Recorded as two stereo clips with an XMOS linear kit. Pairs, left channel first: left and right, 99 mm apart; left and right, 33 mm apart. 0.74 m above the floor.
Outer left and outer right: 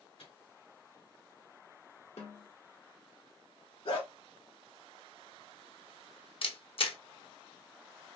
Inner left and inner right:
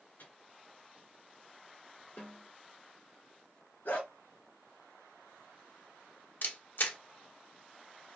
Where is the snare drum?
70° left (ahead or behind), 1.5 m.